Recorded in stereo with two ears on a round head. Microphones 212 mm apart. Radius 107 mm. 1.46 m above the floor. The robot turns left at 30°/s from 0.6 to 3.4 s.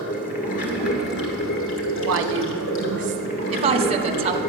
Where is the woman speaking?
115° right, 1.0 m; by 4.4 s 155° right, 1.0 m.